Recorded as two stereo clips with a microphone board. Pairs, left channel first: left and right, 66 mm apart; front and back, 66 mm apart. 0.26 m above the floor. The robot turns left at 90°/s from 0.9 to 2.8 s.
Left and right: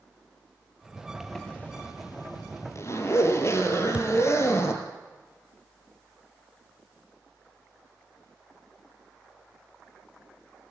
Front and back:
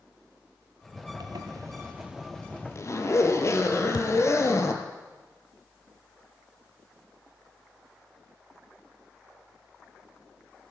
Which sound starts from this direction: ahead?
A thud, at 3.9 s.